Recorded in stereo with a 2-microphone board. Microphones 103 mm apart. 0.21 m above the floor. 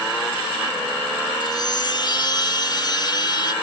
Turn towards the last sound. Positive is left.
turn(degrees=45)  # may be behind; listen again after turning